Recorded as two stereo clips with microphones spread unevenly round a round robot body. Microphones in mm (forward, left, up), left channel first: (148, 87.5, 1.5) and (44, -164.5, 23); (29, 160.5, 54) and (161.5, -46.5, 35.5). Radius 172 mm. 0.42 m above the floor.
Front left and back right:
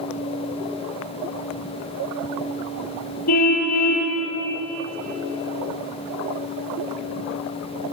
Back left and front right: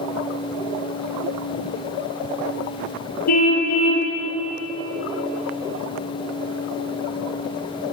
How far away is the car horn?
About 4 m.